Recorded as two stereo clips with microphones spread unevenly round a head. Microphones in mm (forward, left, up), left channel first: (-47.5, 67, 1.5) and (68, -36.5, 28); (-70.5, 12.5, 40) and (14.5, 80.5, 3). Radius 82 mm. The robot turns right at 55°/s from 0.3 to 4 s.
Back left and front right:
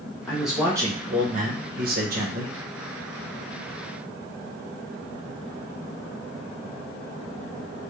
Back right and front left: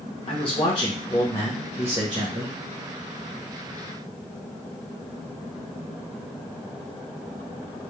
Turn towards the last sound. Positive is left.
turn(degrees=70)